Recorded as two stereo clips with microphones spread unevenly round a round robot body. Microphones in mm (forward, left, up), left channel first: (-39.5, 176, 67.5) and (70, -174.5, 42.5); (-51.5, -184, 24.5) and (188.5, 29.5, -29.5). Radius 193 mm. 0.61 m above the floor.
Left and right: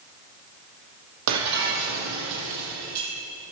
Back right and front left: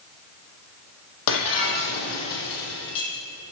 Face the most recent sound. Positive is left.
turn(degrees=-120)